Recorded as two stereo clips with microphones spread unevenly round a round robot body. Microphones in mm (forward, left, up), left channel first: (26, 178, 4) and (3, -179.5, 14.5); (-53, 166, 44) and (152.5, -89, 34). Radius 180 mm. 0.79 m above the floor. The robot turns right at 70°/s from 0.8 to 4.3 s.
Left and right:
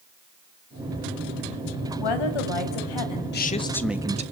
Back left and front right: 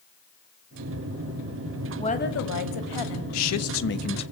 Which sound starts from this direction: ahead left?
A woman speaking, at 2.0 s.